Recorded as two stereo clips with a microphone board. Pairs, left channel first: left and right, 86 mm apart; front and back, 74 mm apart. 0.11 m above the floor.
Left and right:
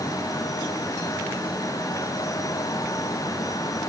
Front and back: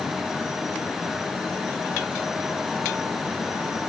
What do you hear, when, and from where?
Only background noise.